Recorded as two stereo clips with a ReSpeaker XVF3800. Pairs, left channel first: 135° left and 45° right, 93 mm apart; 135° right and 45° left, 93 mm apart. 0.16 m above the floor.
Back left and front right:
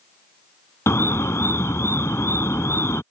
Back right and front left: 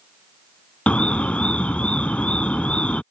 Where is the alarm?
160° left.